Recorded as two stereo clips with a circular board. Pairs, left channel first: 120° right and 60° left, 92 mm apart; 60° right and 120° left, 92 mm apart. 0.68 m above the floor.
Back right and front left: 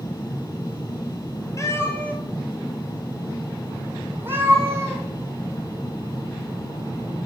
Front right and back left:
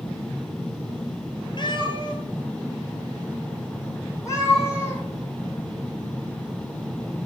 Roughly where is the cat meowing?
Right.